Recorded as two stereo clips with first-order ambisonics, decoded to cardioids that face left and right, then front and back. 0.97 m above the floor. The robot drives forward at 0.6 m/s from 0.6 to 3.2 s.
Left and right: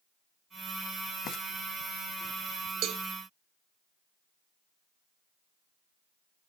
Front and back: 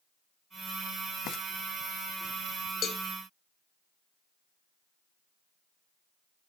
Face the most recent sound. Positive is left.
turn(degrees=-80)